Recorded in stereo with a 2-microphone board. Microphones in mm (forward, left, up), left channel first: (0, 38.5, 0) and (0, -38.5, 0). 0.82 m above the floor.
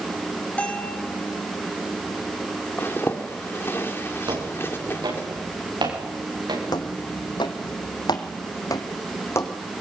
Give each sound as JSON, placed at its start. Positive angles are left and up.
{"t": 0.6, "sound": "a bell", "side_deg": 20, "distance_m": 5.0}
{"t": 2.8, "sound": "a zipper", "side_deg": 30, "distance_m": 2.5}
{"t": 4.3, "sound": "footsteps", "side_deg": -70, "distance_m": 9.0}
{"t": 6.7, "sound": "footsteps", "side_deg": 60, "distance_m": 2.5}